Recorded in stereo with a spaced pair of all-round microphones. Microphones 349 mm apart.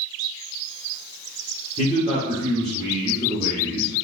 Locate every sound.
1.8 s a man speaking: 20° left (ahead or behind), 0.9 m